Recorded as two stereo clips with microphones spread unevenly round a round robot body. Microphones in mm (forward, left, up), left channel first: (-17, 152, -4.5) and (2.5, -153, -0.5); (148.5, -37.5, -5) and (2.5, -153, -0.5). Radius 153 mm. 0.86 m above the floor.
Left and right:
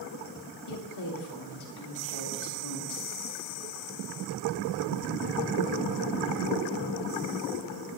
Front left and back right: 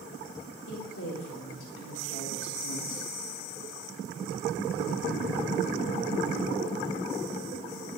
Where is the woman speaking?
65° left, 1.8 m.